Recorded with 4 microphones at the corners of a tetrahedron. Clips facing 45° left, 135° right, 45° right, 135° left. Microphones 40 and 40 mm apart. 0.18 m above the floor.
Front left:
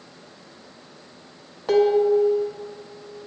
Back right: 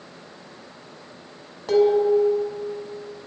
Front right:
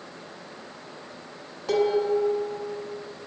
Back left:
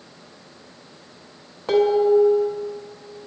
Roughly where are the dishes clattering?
Left.